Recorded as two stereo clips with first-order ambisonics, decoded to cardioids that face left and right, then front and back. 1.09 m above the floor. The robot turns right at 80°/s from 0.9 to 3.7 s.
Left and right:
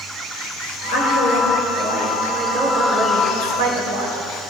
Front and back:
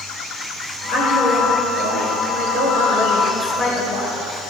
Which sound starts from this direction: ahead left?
A woman speaking, at 0.9 s.